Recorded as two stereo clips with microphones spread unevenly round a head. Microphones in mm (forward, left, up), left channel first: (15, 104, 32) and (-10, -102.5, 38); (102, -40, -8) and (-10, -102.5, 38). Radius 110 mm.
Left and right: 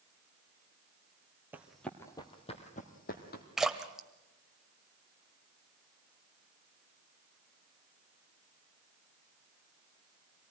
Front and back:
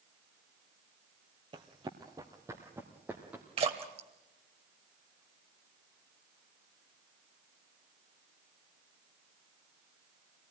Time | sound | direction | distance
1.5 | running footsteps | 175° right | 1.5 m
3.6 | a splash | 175° left | 1.2 m